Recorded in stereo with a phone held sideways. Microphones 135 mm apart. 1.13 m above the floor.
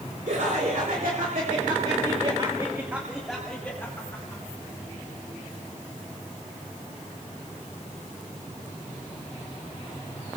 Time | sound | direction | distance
0.3 | laughter | 80° right | 4 m